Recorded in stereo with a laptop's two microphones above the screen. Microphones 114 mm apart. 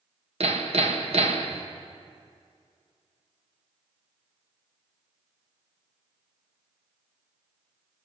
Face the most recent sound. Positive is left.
turn(degrees=-65)  # may be behind; listen again after turning